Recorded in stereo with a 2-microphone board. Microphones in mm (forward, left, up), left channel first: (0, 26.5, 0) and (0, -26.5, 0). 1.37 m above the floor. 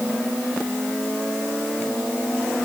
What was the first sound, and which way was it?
Only background noise.